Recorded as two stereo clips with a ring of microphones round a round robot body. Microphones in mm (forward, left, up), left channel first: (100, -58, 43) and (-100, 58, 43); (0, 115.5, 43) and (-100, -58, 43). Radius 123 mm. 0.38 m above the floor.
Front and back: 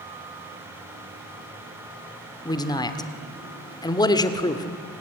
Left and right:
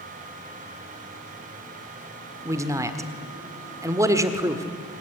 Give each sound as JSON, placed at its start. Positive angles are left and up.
{"t": 2.5, "sound": "a man speaking", "azimuth_deg": -70, "distance_m": 1.4}